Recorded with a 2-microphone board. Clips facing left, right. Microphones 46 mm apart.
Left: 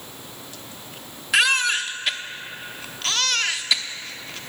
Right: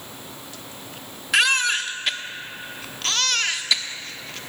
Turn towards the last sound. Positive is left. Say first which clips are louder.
# even
turn(degrees=0)  # may be behind; listen again after turning